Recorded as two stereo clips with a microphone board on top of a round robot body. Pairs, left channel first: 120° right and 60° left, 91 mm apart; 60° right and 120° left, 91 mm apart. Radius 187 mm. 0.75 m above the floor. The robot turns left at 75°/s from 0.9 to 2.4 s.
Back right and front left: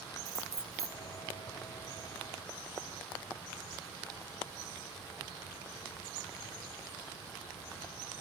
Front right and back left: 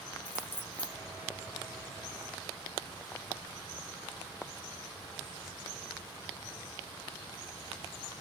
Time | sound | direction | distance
0.2 | keys jangling | 5° left | 3 m